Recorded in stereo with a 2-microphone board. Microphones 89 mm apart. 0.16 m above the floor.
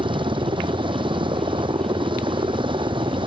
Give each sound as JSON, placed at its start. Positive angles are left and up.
{"t": 0.0, "sound": "a helicopter", "side_deg": -80}